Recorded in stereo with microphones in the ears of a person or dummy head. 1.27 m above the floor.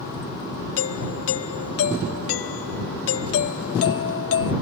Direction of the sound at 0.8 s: 55° left (ahead or behind).